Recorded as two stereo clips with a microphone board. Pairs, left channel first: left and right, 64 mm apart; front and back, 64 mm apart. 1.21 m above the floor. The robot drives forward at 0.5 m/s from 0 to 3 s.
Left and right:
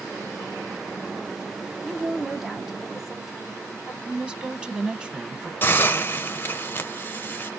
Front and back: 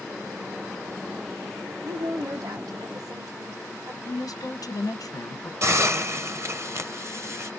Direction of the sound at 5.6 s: 145° left.